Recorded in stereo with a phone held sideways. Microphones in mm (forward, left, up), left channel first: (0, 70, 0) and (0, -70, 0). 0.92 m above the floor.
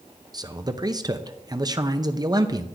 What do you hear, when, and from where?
0.3 s a man speaking: 30° right (ahead or behind), 0.6 m